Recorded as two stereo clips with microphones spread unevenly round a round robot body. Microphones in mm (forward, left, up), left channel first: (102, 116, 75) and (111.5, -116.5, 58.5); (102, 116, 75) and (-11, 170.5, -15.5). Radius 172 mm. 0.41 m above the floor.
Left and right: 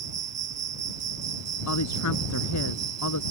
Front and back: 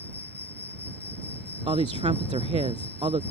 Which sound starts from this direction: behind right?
An insect, at 0.0 s.